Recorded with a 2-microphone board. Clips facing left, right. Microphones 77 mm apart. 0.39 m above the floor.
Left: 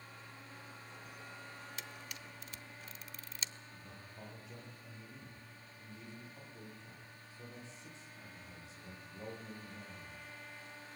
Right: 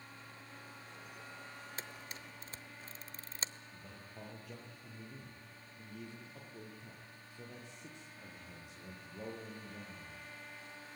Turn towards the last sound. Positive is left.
turn(degrees=-60)  # may be behind; listen again after turning